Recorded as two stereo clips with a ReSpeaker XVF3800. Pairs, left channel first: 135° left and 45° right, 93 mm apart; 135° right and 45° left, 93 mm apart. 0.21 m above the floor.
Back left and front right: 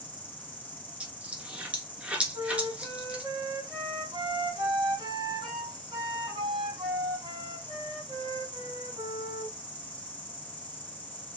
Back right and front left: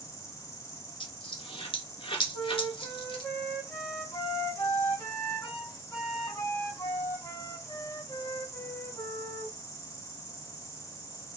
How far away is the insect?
About 1.8 m.